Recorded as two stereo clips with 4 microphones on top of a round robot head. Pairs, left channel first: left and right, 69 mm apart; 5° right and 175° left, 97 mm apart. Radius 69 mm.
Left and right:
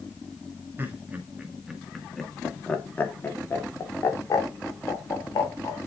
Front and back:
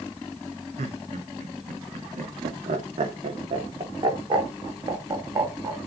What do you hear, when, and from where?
0.8 s laughter: 150° right, 1.9 m; by 5.8 s 125° left, 3.5 m